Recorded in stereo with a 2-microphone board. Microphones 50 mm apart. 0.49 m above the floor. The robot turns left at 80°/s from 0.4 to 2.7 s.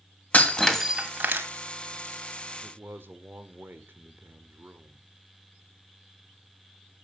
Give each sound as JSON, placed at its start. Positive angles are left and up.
{"t": 0.3, "sound": "breaking glass", "azimuth_deg": 30, "distance_m": 1.8}
{"t": 2.6, "sound": "a man speaking", "side_deg": -45, "distance_m": 1.3}